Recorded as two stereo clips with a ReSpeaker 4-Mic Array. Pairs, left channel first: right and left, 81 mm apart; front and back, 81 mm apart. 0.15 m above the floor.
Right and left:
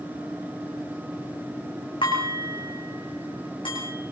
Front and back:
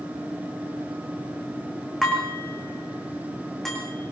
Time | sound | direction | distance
2.0 | dishes clattering | 85° right | 6.5 m